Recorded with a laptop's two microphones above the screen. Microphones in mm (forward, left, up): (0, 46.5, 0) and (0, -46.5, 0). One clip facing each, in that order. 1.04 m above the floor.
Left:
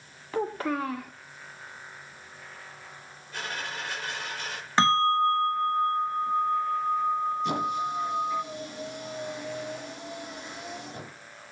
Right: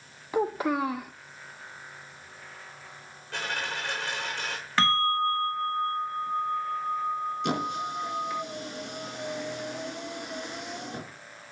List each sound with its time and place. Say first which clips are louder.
0.3 s a child speaking: right 2 dB; 10° right (ahead or behind), 0.5 m
3.3 s a dropped coin: right 2 dB; 80° right, 9 m
4.8 s a bell: left 3 dB; 20° left (ahead or behind), 1.4 m
7.4 s a squeak: left 2 dB; 85° right, 5.5 m